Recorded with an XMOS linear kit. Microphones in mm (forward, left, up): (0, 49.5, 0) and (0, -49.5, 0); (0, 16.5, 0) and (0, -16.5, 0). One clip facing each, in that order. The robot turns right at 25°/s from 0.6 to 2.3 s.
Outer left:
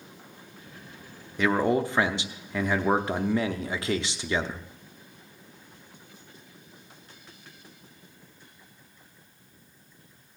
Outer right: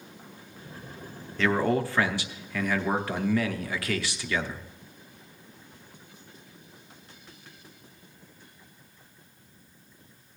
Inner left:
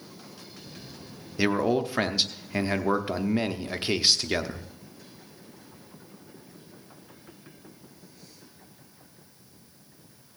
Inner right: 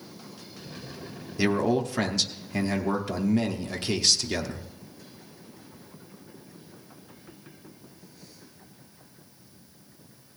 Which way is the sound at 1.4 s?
15° left (ahead or behind).